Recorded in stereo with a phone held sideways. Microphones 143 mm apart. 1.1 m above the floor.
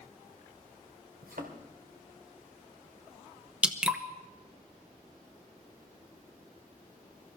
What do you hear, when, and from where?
1.2 s a thud: 80° right, 2 m
3.6 s dripping: 5° right (ahead or behind), 1.0 m